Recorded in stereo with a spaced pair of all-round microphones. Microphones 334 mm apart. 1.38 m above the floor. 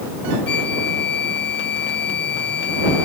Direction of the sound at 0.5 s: 70° left (ahead or behind).